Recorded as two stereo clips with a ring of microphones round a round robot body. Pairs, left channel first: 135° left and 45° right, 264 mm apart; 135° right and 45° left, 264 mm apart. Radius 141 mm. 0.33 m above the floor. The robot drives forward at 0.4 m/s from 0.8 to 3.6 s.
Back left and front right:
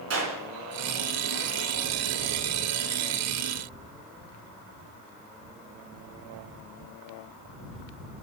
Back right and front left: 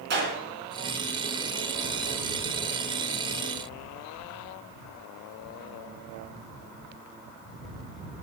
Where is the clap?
5° right, 4 m.